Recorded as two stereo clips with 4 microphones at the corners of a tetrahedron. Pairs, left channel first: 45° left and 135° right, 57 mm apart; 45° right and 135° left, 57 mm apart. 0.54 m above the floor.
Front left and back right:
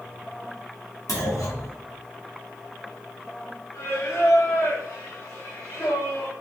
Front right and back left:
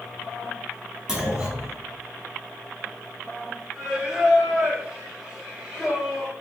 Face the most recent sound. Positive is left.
turn(degrees=50)